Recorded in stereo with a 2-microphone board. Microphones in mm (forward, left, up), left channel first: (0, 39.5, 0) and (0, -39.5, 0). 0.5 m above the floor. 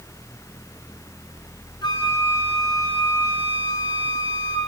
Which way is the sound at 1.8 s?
65° left (ahead or behind).